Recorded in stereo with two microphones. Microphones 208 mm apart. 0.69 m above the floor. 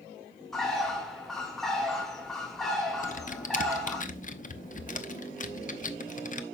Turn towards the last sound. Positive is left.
turn(degrees=40)  # may be behind; listen again after turning